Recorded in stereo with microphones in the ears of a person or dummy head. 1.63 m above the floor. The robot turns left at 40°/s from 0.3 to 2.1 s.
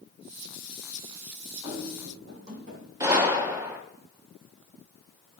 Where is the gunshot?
20° right (ahead or behind), 0.9 m.